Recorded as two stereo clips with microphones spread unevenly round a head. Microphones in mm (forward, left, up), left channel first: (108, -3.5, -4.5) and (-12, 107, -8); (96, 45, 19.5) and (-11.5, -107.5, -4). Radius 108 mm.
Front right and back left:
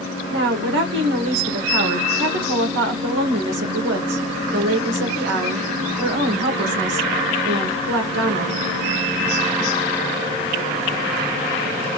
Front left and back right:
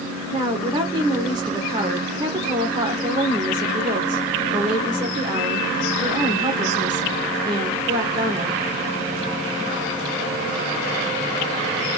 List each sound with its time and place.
0.3 s a woman speaking: 160° left, 1.4 m